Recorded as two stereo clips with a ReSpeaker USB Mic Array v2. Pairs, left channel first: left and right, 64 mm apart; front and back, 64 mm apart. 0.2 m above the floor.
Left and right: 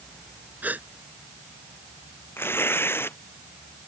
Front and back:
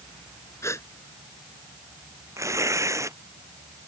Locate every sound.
0.6 s a gasp: 30° right
2.4 s tearing paper: 140° left